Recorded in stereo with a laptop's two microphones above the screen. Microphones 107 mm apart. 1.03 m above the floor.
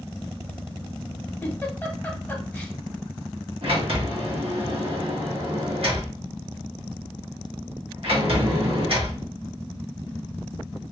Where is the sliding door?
60° right (ahead or behind), 1.3 m.